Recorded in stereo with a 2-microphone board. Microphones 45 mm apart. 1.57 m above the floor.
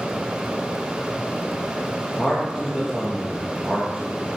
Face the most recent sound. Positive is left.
turn(degrees=10)  # may be behind; listen again after turning